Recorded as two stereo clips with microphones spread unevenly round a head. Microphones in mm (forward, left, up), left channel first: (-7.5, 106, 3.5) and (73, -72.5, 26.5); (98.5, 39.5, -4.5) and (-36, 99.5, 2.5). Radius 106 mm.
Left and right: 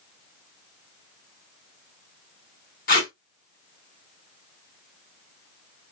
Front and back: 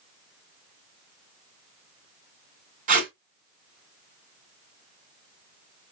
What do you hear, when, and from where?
2.9 s tape being pulled: 160° left, 2.5 m